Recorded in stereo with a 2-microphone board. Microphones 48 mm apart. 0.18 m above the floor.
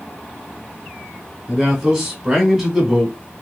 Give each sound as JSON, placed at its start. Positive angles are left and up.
{"t": 1.5, "sound": "a man speaking", "side_deg": -10, "distance_m": 1.4}